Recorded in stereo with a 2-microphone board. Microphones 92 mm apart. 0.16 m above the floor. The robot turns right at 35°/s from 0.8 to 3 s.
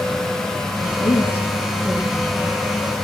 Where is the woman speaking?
140° left, 4.5 m; by 2.6 s 155° right, 4.5 m.